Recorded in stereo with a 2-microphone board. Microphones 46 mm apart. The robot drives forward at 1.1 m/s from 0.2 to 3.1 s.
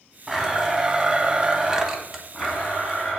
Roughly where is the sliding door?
No sliding door in this recording.